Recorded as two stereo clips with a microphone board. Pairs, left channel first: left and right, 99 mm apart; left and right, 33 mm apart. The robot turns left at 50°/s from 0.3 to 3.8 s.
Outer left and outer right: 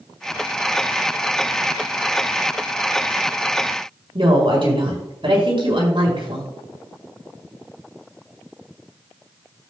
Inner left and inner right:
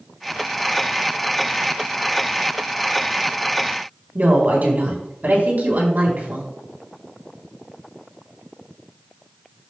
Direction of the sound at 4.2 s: 60° right (ahead or behind).